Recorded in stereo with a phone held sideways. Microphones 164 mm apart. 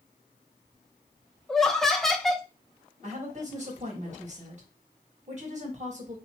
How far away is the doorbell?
No doorbell in this recording.